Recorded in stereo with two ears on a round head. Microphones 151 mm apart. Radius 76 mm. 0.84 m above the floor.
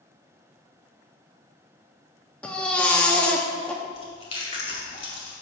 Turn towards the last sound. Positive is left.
turn(degrees=35)  # may be behind; listen again after turning